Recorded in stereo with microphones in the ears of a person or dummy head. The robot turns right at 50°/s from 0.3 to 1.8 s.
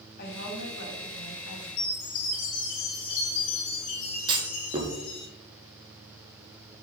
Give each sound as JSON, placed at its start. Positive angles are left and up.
{"t": 0.2, "sound": "a woman speaking", "azimuth_deg": 55, "distance_m": 2.5}
{"t": 1.8, "sound": "a chime", "side_deg": 70, "distance_m": 2.5}
{"t": 4.3, "sound": "a clunk", "side_deg": -25, "distance_m": 1.3}